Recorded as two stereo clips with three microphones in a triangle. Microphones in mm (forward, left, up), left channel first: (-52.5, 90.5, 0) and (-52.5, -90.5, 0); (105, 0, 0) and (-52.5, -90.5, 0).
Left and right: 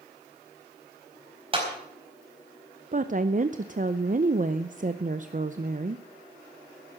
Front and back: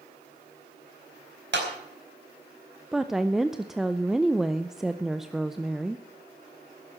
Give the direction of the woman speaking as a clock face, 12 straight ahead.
2 o'clock.